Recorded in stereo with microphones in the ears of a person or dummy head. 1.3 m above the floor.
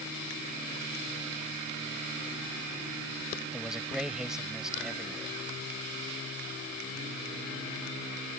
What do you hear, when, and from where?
3.5 s a man speaking: centre (ahead or behind)